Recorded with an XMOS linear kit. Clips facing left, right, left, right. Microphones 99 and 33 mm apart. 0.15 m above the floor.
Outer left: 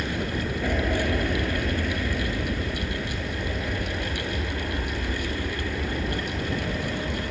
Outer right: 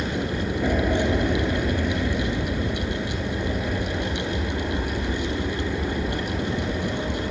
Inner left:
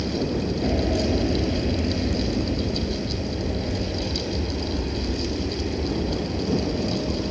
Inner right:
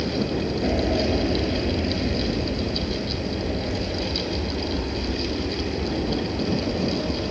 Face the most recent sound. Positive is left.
turn(degrees=-10)  # may be behind; listen again after turning